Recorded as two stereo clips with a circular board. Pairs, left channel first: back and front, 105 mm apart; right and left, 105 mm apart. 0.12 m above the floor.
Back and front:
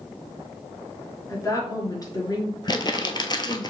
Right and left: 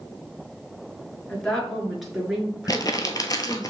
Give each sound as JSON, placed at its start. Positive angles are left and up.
{"t": 1.3, "sound": "a woman speaking", "azimuth_deg": -165, "distance_m": 1.7}
{"t": 2.7, "sound": "crumpling", "azimuth_deg": -140, "distance_m": 0.7}